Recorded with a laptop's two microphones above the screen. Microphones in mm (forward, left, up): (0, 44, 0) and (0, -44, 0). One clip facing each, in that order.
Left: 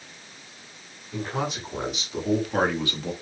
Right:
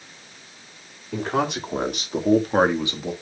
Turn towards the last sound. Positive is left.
turn(degrees=-10)  # may be behind; listen again after turning